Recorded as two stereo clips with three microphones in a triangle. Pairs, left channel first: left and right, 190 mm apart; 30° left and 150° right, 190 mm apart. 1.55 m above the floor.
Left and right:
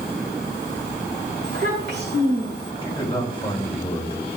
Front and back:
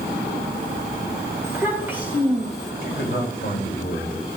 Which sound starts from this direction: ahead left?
A man speaking, at 2.8 s.